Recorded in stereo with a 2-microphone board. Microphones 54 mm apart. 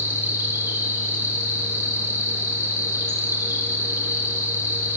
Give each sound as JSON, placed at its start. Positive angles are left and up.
{"t": 0.0, "sound": "an insect", "side_deg": -45, "distance_m": 3.5}